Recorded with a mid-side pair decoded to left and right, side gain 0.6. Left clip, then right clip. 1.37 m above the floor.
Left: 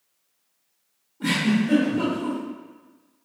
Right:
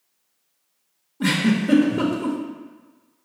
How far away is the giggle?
About 1.0 m.